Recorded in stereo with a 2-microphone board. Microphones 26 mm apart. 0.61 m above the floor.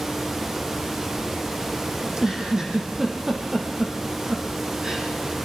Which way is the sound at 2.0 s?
20° right (ahead or behind).